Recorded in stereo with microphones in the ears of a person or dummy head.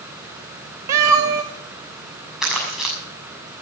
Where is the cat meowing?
15° right (ahead or behind), 0.7 m.